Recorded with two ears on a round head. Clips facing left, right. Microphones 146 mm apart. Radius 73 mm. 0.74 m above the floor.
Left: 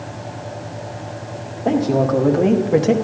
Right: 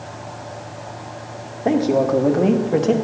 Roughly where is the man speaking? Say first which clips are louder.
Even; centre.